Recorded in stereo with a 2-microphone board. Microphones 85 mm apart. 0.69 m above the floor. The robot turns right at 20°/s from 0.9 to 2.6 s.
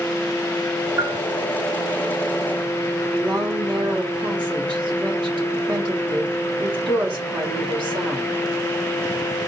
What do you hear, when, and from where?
1.0 s a bell: 40° right (ahead or behind), 0.9 m; by 1.2 s 45° right (ahead or behind), 0.9 m
3.1 s a woman speaking: 65° right (ahead or behind), 2.0 m